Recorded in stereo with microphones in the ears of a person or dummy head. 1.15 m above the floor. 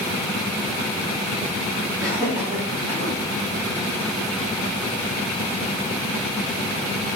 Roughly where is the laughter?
Centre.